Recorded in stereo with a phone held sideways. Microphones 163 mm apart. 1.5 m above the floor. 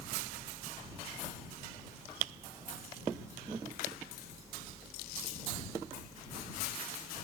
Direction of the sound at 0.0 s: 20° right (ahead or behind).